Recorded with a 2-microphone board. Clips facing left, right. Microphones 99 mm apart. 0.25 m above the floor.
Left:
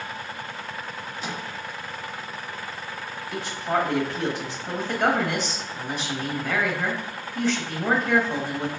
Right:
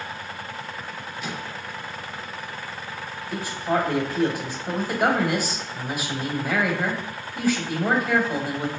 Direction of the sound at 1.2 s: 30° left (ahead or behind).